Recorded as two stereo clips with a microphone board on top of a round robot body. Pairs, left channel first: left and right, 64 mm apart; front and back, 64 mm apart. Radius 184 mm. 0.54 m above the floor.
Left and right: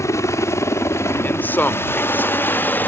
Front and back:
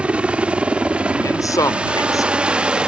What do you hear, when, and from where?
0.0 s a helicopter: 110° left; by 2.9 s 115° left
1.2 s a man speaking: 30° left